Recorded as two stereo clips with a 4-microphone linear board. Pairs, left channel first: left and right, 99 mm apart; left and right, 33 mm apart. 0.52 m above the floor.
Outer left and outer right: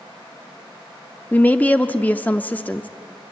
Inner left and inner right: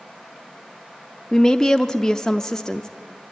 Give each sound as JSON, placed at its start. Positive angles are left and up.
{"t": 1.3, "sound": "a woman speaking", "side_deg": 20, "distance_m": 0.7}